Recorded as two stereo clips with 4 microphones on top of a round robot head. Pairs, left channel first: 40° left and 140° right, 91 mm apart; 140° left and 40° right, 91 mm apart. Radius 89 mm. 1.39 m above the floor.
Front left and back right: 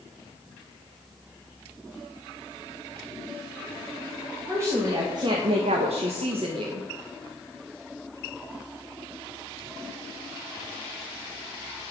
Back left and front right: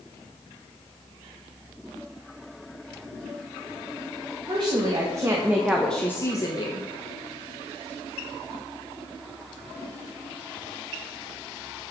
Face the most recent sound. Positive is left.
turn(degrees=175)